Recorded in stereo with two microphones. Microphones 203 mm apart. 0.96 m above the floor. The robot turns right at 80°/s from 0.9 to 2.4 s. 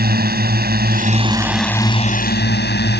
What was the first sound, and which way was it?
A drone, 55° right.